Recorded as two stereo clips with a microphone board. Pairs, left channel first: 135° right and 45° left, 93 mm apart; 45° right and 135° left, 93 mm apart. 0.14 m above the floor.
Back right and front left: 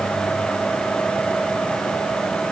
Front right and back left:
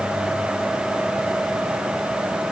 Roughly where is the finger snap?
I don't hear a finger snap.